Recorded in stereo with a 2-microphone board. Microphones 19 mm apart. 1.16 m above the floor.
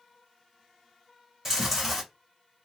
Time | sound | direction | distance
1.4 | chewing | 20° right (ahead or behind) | 2.5 m